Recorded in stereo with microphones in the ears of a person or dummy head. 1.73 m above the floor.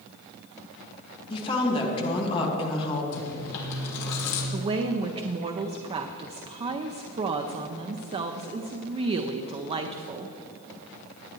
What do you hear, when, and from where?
1.3 s a woman speaking: 30° left (ahead or behind), 1.8 m
3.1 s chewing: 65° left (ahead or behind), 2.5 m
4.5 s a woman speaking: 35° right (ahead or behind), 0.5 m